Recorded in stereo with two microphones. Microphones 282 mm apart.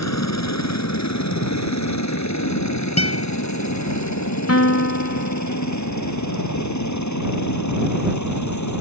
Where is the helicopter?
65° left (ahead or behind); by 8.8 s 80° left.